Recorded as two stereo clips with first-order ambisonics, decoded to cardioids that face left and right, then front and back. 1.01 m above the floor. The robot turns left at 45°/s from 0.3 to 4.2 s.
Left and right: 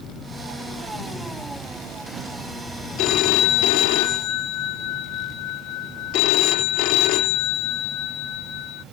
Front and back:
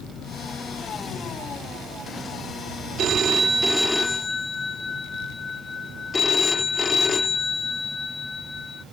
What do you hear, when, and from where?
3.0 s a phone ringing: 125° left; by 8.8 s 70° left